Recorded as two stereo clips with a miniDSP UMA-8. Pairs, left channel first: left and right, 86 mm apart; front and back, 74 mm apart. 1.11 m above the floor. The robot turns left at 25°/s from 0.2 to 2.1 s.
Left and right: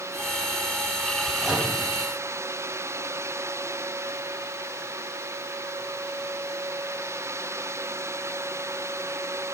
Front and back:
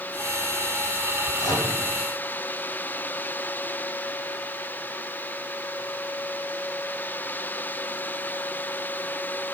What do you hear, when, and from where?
1.4 s a microwave: 10° right, 4 m; by 1.7 s 20° right, 4 m